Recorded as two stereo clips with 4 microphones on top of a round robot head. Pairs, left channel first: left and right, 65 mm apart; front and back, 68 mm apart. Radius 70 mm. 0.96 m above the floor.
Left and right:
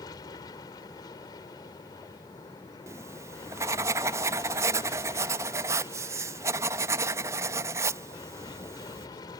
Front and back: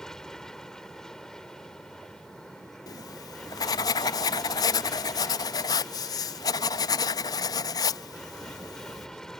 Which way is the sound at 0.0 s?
80° left.